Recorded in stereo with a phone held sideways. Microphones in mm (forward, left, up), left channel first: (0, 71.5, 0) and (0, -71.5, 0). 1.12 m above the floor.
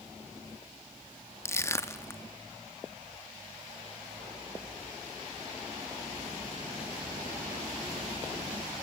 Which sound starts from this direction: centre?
Crushing, at 1.4 s.